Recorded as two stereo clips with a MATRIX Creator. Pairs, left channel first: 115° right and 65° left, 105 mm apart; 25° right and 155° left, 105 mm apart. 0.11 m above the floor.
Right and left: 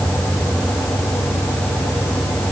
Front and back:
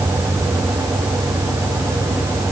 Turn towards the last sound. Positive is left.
No sound to turn to.